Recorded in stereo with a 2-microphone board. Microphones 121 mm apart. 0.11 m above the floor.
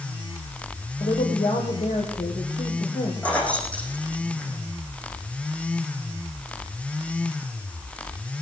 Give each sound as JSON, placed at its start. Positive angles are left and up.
{"t": 1.0, "sound": "a woman speaking", "side_deg": 55, "distance_m": 3.0}
{"t": 3.2, "sound": "keys jangling", "side_deg": 10, "distance_m": 3.5}